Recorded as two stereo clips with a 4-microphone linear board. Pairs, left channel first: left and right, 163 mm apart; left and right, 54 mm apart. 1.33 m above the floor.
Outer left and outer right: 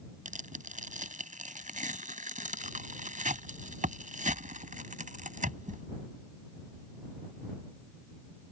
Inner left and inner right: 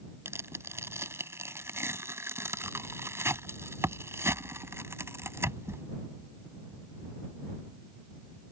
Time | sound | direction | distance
0.2 | tearing paper | 50° right (ahead or behind) | ?